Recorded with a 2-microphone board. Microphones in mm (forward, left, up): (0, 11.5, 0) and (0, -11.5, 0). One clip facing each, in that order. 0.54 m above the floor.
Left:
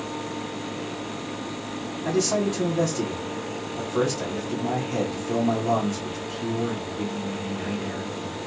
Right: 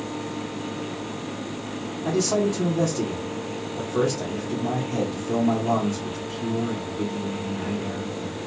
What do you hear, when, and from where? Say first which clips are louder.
2.0 s a man speaking: right 1 dB; 10° left (ahead or behind), 1.1 m